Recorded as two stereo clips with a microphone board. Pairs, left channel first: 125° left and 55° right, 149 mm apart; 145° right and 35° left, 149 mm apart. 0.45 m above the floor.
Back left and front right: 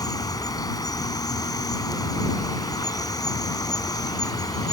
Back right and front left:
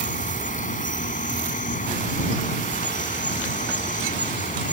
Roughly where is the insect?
Behind.